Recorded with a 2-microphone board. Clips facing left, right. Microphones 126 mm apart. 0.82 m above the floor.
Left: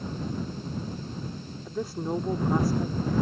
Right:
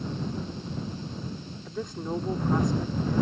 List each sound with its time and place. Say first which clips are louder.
1.6 s a woman speaking: left 2 dB; 5° left (ahead or behind)